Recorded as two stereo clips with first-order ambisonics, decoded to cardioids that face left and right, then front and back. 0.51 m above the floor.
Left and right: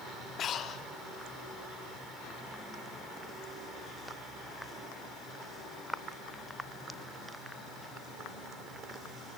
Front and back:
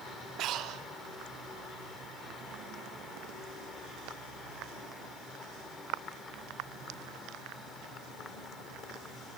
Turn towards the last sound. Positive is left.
turn(degrees=145)